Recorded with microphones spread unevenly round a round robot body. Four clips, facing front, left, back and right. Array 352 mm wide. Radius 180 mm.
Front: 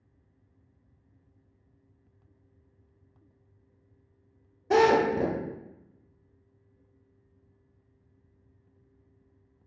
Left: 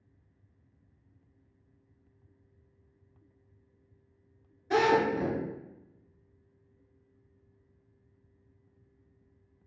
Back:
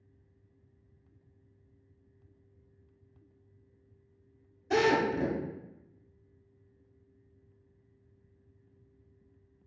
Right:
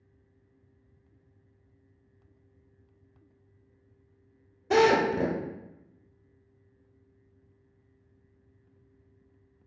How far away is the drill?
About 1.3 m.